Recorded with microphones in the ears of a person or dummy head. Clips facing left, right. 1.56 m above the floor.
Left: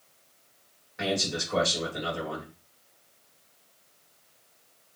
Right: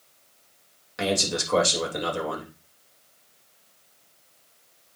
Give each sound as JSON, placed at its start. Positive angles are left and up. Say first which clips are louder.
{"t": 1.0, "sound": "a man speaking", "louder": "right 3 dB", "side_deg": -80, "distance_m": 3.5}